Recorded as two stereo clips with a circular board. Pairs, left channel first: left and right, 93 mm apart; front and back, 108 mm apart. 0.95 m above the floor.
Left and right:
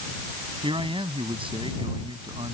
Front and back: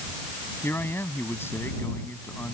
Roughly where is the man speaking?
Right.